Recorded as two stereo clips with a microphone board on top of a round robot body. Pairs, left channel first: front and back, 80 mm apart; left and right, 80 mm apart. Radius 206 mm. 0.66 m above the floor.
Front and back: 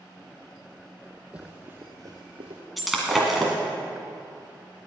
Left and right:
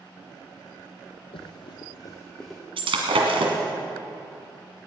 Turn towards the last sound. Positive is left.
turn(degrees=-90)